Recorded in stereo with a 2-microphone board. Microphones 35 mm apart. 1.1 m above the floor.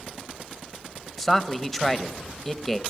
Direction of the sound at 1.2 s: 5° left (ahead or behind).